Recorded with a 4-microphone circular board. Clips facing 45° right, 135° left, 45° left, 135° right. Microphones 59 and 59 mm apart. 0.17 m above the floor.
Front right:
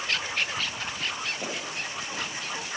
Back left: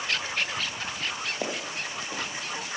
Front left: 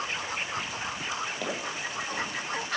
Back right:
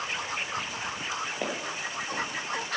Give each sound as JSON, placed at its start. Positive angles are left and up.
{"t": 1.4, "sound": "footsteps", "azimuth_deg": 155, "distance_m": 4.0}